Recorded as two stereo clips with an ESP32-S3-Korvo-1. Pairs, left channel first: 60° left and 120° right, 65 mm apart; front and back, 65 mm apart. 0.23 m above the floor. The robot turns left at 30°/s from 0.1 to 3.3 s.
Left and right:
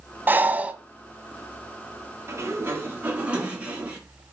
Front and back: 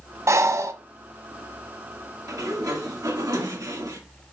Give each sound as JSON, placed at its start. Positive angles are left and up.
{"t": 0.3, "sound": "breathing", "azimuth_deg": -165, "distance_m": 0.9}
{"t": 2.3, "sound": "a sliding door", "azimuth_deg": -160, "distance_m": 2.0}